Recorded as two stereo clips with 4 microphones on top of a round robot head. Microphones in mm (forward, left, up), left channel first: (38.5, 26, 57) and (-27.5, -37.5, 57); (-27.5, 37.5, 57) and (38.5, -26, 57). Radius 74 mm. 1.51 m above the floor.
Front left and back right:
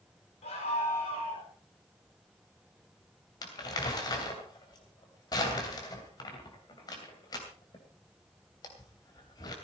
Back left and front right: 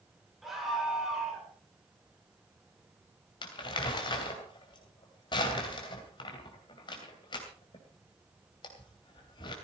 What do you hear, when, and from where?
0.4 s a scream: 45° left, 7 m
3.4 s crumpling: 95° left, 2.5 m